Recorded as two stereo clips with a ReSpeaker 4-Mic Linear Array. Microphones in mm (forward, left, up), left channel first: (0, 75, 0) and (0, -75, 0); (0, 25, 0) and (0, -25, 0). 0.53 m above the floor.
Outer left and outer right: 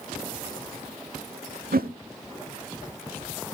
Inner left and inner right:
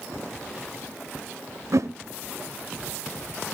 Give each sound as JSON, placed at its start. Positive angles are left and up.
{"t": 1.7, "sound": "a whoosh", "side_deg": -75, "distance_m": 0.7}